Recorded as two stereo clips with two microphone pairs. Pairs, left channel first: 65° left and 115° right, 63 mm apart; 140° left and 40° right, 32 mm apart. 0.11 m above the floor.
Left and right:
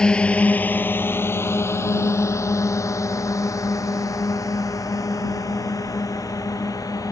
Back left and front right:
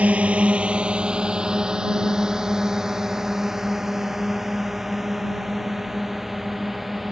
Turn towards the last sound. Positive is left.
turn(degrees=45)